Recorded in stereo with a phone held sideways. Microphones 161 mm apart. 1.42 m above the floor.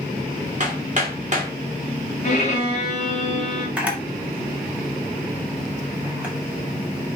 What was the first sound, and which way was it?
Hammering, 50° right (ahead or behind).